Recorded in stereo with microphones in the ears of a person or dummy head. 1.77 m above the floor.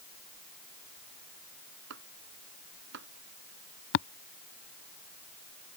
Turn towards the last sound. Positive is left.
turn(degrees=65)  # may be behind; listen again after turning